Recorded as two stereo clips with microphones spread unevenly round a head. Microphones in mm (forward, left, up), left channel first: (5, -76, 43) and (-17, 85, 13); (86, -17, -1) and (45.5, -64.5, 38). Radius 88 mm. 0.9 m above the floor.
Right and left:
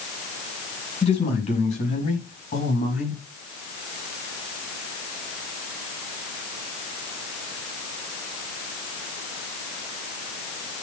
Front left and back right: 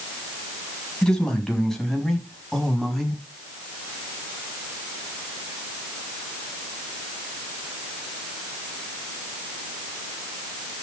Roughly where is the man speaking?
Ahead right.